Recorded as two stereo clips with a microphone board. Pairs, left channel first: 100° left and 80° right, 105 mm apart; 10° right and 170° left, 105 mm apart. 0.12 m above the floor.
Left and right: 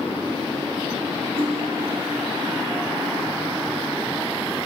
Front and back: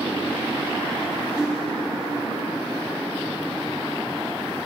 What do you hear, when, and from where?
1.4 s cutlery clinking: 105° right, 2.5 m